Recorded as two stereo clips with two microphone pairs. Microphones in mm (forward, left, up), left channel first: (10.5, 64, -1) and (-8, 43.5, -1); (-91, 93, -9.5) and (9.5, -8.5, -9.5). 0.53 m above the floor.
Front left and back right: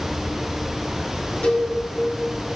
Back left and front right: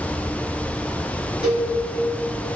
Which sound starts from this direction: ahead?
A cowbell, at 1.4 s.